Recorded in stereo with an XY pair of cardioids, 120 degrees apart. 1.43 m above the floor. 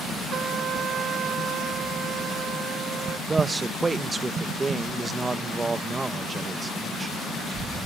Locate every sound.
0.3 s a trumpet: 45° right
3.3 s a man speaking: 25° right